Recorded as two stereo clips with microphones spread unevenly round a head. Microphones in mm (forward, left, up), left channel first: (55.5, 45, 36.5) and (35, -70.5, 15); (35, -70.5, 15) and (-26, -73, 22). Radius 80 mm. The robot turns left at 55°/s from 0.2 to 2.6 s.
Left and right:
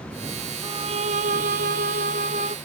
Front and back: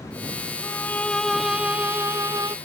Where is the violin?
50° right; by 2.5 s 155° right.